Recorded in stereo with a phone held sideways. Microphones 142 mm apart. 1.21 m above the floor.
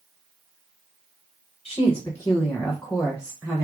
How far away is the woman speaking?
About 1.3 m.